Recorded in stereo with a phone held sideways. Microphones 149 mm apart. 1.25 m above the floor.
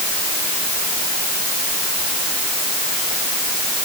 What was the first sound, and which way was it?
Only background noise.